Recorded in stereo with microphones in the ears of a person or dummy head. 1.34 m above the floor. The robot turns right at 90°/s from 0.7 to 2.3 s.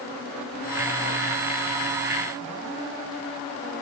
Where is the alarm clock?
No alarm clock in this recording.